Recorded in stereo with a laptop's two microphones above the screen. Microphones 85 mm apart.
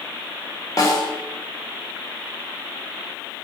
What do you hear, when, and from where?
0.8 s a snare drum: 40° left (ahead or behind), 2 m